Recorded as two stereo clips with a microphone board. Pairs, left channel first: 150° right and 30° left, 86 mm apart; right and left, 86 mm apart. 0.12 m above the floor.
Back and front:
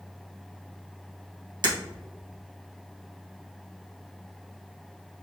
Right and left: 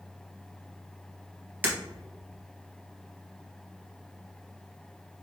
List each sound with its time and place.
1.6 s breaking glass: 25° left, 1.7 m